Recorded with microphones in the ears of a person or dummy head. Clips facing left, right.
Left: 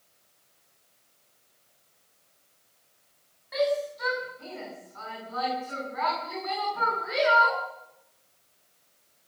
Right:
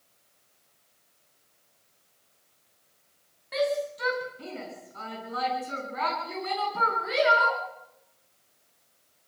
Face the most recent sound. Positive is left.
turn(degrees=-45)  # may be behind; listen again after turning